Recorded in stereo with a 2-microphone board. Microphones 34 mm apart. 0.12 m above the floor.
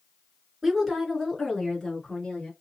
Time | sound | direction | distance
0.6 | a woman speaking | 5° right (ahead or behind) | 1.7 m